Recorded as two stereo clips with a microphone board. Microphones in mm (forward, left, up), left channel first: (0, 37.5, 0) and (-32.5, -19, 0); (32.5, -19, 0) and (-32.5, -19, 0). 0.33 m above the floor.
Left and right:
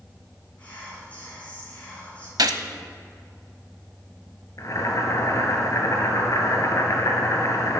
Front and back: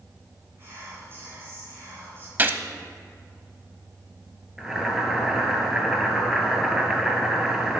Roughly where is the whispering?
Behind left.